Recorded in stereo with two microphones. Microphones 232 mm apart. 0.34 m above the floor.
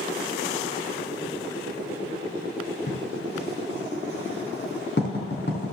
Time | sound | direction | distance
2.9 | writing | 50° left (ahead or behind) | 3.5 m